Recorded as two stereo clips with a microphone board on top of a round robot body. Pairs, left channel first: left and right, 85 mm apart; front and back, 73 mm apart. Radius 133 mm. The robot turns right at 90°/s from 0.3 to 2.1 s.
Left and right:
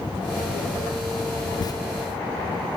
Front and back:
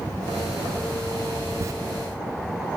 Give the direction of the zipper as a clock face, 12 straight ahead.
8 o'clock.